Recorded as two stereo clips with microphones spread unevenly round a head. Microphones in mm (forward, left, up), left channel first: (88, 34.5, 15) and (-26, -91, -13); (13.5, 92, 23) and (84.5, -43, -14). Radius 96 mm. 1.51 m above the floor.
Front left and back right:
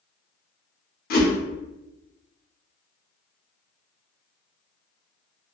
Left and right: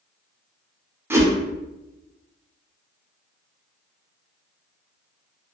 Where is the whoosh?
10° left, 0.7 m.